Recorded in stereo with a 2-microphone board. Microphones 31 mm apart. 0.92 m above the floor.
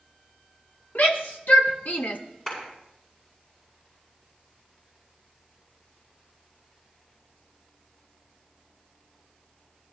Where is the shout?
65° left (ahead or behind), 2 m; by 2.2 s 60° left (ahead or behind), 1.1 m.